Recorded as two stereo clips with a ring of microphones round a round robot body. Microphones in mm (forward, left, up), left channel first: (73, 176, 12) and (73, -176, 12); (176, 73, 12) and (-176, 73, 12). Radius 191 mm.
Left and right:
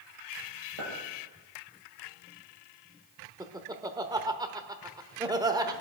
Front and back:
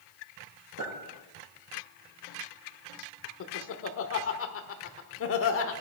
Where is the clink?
120° right, 5.5 m.